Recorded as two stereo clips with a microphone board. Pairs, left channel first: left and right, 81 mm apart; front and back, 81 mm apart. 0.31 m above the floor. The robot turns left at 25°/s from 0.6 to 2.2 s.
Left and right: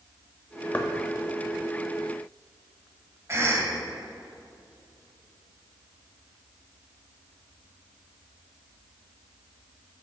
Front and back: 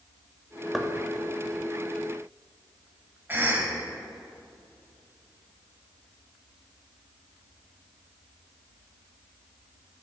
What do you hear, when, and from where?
0.7 s knocking: 90° left, 0.5 m
3.3 s a cough: 130° right, 1.2 m